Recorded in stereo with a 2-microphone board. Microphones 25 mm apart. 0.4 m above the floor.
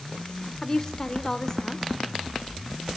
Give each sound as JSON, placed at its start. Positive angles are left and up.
{"t": 0.6, "sound": "a woman speaking", "side_deg": 20, "distance_m": 0.8}